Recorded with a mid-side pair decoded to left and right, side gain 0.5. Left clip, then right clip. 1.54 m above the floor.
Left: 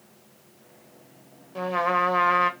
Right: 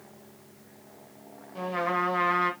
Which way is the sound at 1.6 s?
30° left.